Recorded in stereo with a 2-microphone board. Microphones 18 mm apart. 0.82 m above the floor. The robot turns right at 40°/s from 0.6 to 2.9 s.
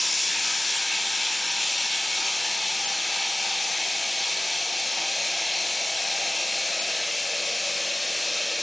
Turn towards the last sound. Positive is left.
turn(degrees=160)